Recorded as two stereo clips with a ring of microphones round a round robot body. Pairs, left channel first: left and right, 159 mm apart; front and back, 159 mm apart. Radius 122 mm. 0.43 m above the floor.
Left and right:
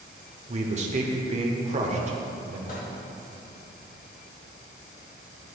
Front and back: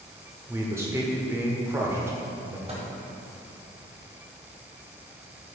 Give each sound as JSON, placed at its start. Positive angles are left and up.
{"t": 0.5, "sound": "a man speaking", "azimuth_deg": -110, "distance_m": 1.0}
{"t": 2.7, "sound": "a microwave", "azimuth_deg": 130, "distance_m": 2.5}